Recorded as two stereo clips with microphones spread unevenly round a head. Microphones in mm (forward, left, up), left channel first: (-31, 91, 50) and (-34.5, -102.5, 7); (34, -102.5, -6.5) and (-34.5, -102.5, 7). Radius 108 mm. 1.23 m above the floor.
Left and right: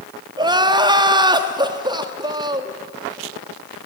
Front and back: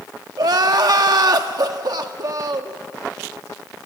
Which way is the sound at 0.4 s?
160° right.